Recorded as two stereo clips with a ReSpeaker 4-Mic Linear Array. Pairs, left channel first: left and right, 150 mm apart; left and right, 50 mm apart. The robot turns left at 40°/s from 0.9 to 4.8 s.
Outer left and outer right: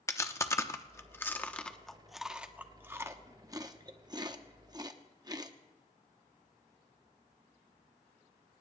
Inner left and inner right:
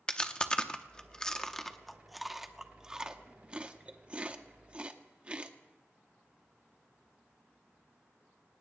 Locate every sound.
0.1 s chewing: 20° left (ahead or behind), 0.8 m; by 5.5 s 25° right (ahead or behind), 0.8 m